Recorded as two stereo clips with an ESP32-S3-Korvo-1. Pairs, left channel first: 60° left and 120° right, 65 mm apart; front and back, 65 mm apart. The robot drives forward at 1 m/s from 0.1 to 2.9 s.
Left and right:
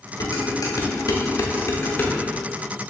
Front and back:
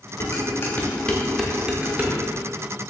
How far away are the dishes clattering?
About 1.6 m.